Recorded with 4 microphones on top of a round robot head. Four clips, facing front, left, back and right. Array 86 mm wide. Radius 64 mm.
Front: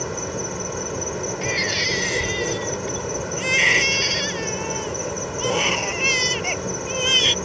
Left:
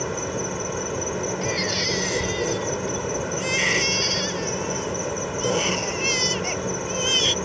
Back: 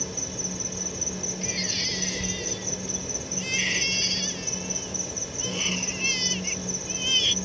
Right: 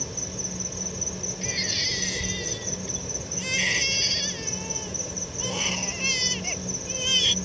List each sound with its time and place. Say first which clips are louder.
0.0 s an insect: left 11 dB, front 9 dB; 50° left
1.4 s a baby crying: left 7 dB, front 11 dB; 15° left